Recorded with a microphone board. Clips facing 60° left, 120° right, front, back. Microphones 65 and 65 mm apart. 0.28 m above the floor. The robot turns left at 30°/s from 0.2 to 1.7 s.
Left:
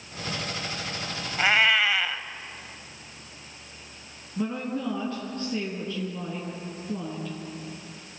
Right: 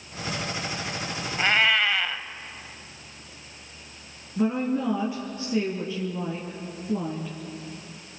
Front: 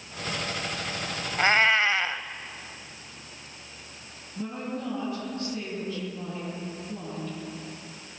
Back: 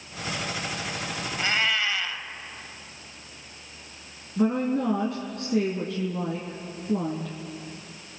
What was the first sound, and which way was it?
A cat meowing, 15° right.